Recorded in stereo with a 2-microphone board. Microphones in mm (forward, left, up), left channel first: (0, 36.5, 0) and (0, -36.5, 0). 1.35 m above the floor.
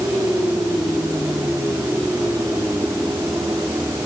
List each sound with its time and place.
Only background noise.